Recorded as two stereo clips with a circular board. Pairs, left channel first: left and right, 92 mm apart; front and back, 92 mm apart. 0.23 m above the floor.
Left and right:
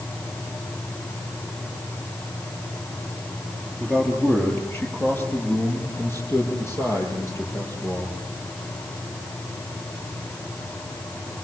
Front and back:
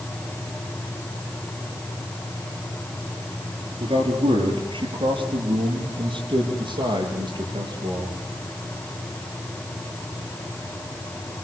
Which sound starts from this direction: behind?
A man speaking, at 3.8 s.